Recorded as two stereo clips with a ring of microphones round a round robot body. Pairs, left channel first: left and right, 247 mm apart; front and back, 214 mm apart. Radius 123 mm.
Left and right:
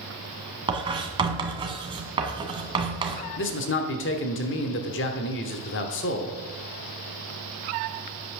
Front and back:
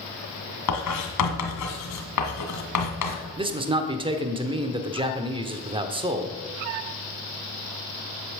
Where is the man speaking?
120° left, 1.1 m.